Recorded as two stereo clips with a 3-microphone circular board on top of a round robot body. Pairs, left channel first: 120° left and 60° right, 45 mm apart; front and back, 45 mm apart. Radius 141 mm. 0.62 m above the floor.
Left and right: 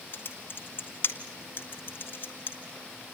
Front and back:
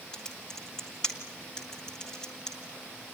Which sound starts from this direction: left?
Typing on a keyboard, at 0.1 s.